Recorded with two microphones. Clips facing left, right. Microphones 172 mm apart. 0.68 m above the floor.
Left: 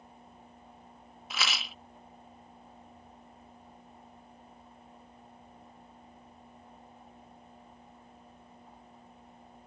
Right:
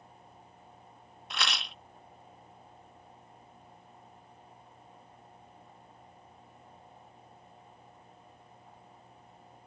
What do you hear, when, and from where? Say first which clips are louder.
1.3 s a rattle: even; 5° left (ahead or behind)